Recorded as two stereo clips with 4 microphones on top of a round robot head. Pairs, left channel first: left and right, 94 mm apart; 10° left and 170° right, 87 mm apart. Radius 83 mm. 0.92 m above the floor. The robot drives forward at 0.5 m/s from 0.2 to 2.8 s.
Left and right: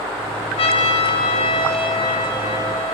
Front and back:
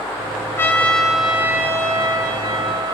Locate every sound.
0.6 s a trumpet: 75° left, 0.6 m; by 2.9 s 150° left, 1.1 m